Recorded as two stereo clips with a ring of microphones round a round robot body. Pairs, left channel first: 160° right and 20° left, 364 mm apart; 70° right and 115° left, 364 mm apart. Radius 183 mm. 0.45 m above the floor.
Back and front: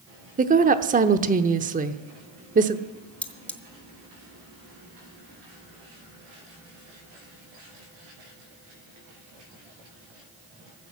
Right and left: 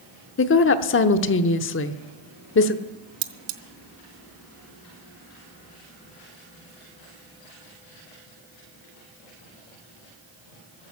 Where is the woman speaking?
35° right, 0.8 m.